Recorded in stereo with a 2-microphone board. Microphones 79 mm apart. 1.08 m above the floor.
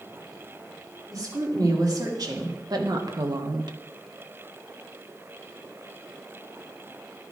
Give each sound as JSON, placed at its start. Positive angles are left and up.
{"t": 1.1, "sound": "a woman speaking", "side_deg": -50, "distance_m": 3.0}